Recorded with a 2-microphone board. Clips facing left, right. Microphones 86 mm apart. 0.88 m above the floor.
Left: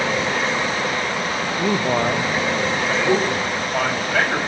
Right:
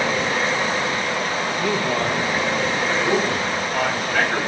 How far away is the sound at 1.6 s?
About 0.7 m.